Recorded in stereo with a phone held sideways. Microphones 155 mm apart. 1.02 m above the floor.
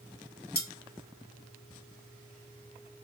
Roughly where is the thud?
No thud in this recording.